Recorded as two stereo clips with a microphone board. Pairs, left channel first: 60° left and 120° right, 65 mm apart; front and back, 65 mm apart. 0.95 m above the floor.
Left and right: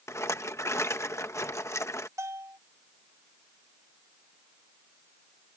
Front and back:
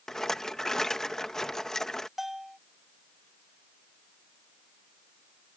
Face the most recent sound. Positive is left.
turn(degrees=-95)